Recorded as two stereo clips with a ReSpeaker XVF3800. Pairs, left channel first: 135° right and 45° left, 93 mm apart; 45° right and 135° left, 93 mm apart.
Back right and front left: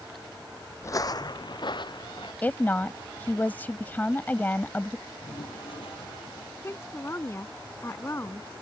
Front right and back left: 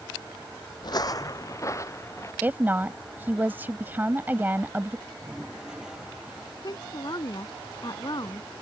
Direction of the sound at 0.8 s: 80° right.